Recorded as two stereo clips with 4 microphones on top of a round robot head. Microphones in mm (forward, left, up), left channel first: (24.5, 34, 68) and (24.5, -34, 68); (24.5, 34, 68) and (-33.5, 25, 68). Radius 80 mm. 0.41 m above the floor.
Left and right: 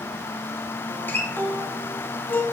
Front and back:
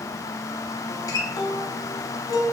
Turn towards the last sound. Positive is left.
turn(degrees=25)